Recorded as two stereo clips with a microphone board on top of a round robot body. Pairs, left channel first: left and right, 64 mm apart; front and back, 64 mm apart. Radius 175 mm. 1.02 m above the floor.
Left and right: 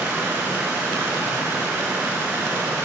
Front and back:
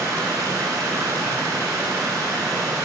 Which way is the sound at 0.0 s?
150° right.